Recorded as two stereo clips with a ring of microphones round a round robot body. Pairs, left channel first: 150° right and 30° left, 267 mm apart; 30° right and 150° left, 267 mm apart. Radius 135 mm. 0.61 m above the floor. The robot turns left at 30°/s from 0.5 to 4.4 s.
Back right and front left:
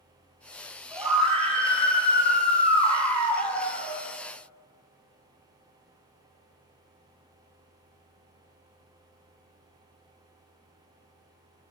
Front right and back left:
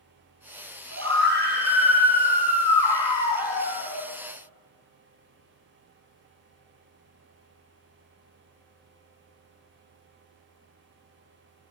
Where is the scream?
110° left, 4.5 m; by 4.0 s 20° left, 4.5 m.